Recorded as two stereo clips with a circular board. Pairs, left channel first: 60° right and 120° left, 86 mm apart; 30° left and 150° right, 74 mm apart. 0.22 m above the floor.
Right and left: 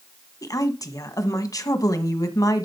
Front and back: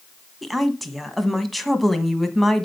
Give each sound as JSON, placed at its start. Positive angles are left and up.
{"t": 0.4, "sound": "a woman speaking", "azimuth_deg": -60, "distance_m": 1.3}